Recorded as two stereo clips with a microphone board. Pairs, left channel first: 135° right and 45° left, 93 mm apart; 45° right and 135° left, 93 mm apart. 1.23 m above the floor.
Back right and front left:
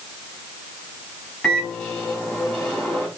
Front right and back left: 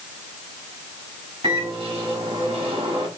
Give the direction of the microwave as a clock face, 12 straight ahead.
7 o'clock.